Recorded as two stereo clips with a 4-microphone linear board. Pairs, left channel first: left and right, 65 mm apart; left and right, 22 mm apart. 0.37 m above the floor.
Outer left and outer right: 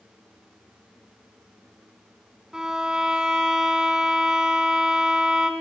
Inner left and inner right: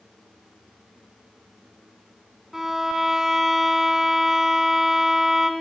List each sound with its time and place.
2.5 s a violin: 10° right (ahead or behind), 2 m